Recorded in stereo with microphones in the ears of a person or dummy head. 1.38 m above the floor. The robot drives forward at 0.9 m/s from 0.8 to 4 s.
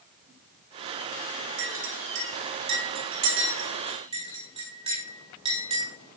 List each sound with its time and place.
1.6 s a clink: 70° right (ahead or behind), 2.0 m; by 5.9 s 35° right (ahead or behind), 3.5 m